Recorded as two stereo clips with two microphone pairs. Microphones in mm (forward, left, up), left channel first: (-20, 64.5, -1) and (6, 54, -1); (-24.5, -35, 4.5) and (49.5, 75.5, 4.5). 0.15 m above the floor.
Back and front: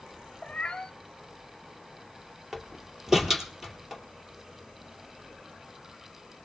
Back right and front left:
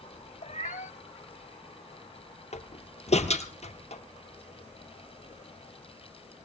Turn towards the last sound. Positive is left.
turn(degrees=-95)